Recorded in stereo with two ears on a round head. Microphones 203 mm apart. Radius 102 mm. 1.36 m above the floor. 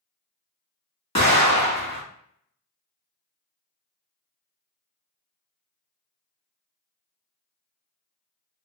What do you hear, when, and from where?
1.1 s an explosion: 25° left (ahead or behind), 1.6 m